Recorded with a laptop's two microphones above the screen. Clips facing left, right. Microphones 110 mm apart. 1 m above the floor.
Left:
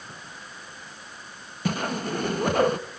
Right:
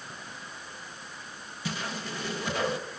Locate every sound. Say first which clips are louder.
1.6 s a whoosh: left 8 dB; 50° left (ahead or behind), 0.6 m